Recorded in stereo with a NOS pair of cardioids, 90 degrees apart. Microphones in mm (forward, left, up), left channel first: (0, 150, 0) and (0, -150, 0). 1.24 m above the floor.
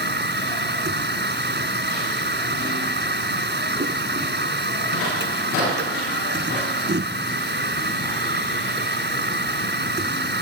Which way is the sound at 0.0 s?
35° right.